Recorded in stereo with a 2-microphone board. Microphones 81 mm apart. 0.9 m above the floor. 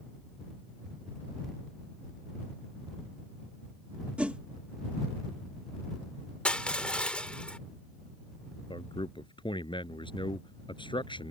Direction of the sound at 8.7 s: 85° left.